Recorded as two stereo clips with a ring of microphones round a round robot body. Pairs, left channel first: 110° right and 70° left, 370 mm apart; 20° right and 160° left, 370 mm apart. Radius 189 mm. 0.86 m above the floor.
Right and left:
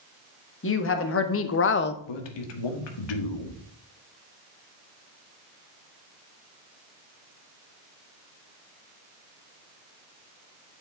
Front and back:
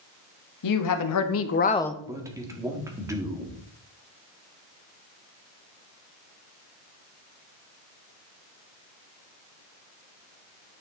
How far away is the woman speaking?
About 1.6 m.